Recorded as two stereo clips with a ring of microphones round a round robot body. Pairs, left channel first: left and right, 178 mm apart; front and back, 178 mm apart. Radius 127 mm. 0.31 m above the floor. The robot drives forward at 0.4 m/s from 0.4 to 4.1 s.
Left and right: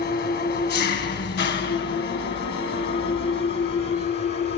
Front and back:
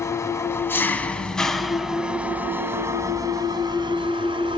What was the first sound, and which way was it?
An engine running, 75° left.